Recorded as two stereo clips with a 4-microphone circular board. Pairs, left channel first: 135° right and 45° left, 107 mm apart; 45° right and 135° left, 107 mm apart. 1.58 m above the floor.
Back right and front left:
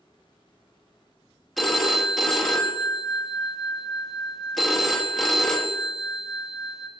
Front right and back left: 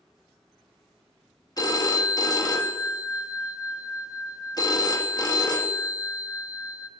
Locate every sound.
1.6 s a phone ringing: 45° right, 1.1 m